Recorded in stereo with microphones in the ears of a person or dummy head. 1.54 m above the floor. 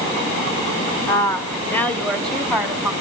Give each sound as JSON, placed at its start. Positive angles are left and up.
{"t": 1.1, "sound": "a woman speaking", "side_deg": 10, "distance_m": 1.6}